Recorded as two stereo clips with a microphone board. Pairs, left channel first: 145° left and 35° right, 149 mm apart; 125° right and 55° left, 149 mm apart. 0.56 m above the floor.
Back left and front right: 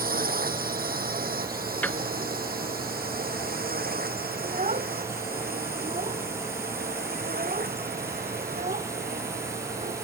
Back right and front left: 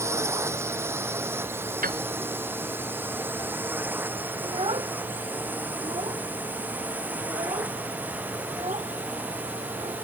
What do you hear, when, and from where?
0.0 s a drone: 15° right; by 10.0 s 25° right
1.8 s a piano: 65° left
4.4 s a child speaking: straight ahead